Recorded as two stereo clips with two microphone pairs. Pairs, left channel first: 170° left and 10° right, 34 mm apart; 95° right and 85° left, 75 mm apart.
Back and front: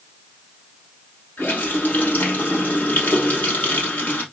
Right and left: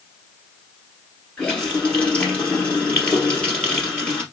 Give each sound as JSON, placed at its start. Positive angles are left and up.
{"t": 1.4, "sound": "a running tap", "azimuth_deg": -165, "distance_m": 2.5}